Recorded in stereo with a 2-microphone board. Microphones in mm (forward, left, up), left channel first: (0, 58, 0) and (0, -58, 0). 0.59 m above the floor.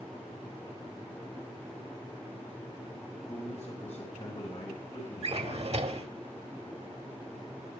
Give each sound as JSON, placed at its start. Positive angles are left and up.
{"t": 3.1, "sound": "a man speaking", "side_deg": 55, "distance_m": 3.5}
{"t": 5.2, "sound": "a drawer", "side_deg": -60, "distance_m": 0.9}